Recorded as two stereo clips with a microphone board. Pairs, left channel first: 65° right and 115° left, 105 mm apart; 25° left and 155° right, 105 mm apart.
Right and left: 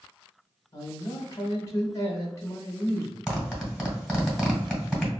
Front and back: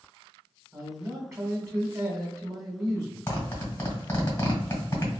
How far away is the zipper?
About 1.5 m.